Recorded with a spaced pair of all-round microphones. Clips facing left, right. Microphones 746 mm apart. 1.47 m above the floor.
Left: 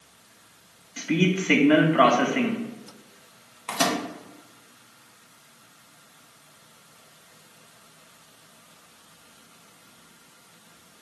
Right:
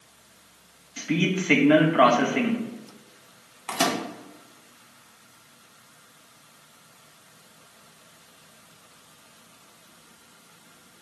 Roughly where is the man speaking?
Centre.